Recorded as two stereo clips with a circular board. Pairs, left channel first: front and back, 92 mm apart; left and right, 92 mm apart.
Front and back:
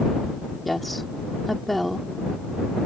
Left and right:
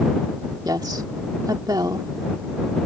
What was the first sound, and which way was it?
A woman speaking, 90° right.